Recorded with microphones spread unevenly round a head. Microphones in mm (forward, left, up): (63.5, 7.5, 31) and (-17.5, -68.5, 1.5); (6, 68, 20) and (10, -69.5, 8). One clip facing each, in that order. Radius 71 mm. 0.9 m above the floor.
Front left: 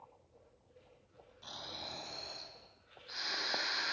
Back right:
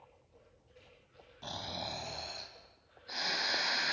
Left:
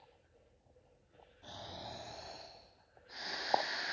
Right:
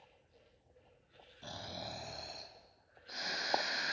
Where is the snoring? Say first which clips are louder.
Back right 7 dB, right 2 dB; 105° right, 4 m.